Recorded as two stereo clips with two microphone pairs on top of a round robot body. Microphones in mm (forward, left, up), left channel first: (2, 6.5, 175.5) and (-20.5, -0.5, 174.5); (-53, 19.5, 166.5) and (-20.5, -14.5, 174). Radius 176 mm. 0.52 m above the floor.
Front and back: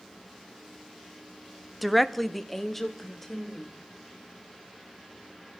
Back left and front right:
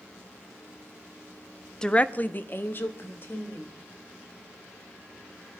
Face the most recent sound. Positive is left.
turn(degrees=95)